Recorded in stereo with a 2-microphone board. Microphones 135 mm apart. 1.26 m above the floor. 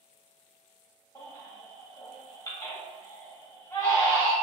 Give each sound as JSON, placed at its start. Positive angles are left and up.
{"t": 1.1, "sound": "a baby crying", "side_deg": 25, "distance_m": 1.0}